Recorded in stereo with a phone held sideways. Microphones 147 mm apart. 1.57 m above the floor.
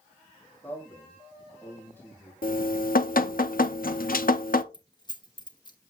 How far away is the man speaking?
About 4.5 m.